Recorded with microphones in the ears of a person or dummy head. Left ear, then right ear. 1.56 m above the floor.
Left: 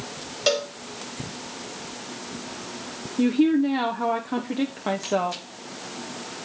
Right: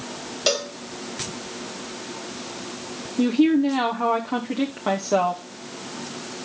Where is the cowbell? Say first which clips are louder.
Even; 5° left (ahead or behind), 1.2 m.